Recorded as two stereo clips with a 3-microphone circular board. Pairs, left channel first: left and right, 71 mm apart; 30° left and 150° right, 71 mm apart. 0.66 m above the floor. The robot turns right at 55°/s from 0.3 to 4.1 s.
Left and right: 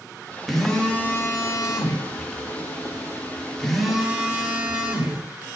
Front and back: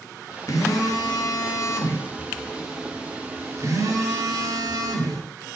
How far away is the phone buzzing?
About 1.3 m.